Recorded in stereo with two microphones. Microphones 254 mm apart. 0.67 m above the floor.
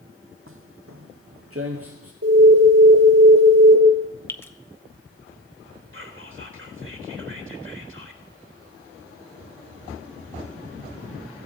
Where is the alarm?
65° right (ahead or behind), 4 m.